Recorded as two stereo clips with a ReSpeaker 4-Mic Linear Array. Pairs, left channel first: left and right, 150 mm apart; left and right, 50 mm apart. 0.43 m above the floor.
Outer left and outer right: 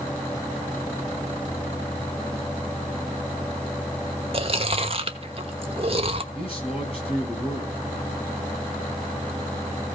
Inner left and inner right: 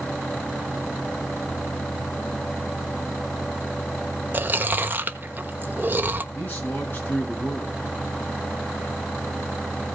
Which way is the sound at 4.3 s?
40° right (ahead or behind).